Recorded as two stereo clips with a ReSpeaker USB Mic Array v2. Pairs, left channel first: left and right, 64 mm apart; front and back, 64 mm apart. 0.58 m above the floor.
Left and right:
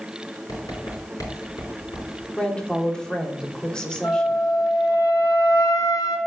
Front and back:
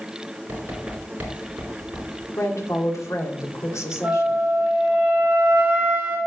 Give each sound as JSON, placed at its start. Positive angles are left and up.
{"t": 0.5, "sound": "writing", "azimuth_deg": 115, "distance_m": 4.5}
{"t": 2.4, "sound": "a woman speaking", "azimuth_deg": 15, "distance_m": 1.7}
{"t": 4.0, "sound": "a flute", "azimuth_deg": 115, "distance_m": 4.5}